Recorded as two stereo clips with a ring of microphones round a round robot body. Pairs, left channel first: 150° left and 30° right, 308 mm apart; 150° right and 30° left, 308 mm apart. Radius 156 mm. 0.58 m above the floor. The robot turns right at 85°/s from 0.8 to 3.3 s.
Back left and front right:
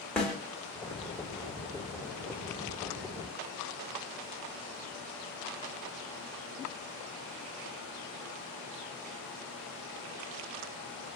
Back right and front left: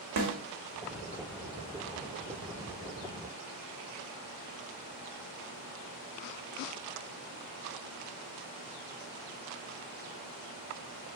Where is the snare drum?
65° left, 1.2 m.